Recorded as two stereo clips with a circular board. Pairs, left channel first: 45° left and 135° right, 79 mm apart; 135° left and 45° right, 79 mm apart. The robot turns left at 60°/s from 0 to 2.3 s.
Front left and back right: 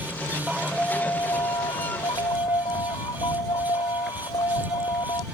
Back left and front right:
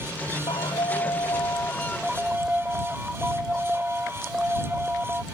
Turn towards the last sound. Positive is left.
turn(degrees=30)